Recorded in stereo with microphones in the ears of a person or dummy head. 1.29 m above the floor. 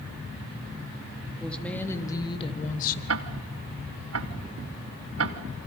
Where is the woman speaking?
5° left (ahead or behind), 3 m; by 3.0 s 55° left (ahead or behind), 1.7 m.